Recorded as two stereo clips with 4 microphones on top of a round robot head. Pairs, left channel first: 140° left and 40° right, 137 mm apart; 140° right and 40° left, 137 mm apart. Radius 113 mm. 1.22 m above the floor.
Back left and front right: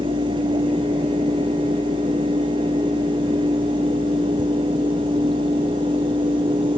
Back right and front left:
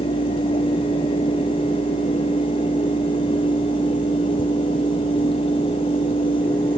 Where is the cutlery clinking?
I don't hear cutlery clinking.